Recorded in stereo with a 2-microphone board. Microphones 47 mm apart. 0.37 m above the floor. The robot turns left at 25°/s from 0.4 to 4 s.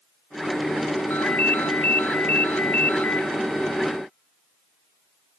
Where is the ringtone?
110° left, 0.6 m; by 3.3 s 55° left, 0.6 m.